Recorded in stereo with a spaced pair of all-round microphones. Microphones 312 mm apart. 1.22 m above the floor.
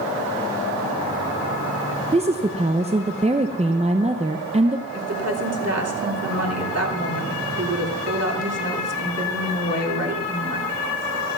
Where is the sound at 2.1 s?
20° right (ahead or behind), 0.6 m.